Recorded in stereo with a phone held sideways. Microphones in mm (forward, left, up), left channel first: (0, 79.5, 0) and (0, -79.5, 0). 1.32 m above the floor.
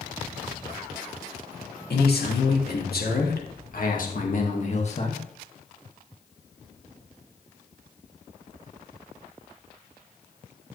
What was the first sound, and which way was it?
A man speaking, 85° left.